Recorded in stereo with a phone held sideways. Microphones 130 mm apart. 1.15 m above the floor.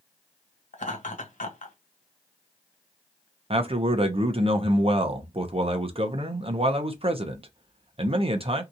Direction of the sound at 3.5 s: 45° right (ahead or behind).